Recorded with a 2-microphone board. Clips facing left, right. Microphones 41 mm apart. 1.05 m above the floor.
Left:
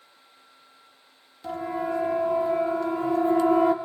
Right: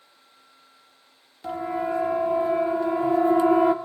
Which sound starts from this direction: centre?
A siren, at 1.4 s.